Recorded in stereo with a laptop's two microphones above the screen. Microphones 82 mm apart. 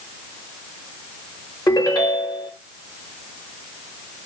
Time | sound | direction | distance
1.7 | a ringtone | 50° left (ahead or behind) | 0.8 m